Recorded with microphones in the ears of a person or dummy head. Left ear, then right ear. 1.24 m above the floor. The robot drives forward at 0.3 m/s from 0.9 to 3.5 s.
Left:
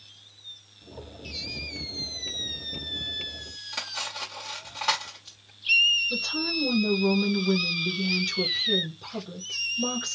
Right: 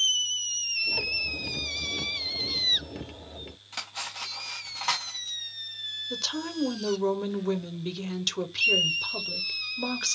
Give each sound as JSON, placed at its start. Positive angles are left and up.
{"t": 3.7, "sound": "cutlery clinking", "side_deg": 0, "distance_m": 0.8}
{"t": 6.1, "sound": "a woman speaking", "side_deg": -40, "distance_m": 0.8}